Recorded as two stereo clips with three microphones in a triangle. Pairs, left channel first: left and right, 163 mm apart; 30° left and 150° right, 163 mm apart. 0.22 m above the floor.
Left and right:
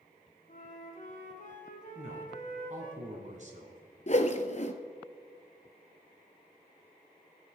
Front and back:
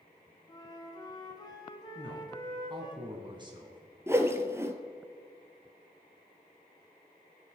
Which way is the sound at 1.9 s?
100° right.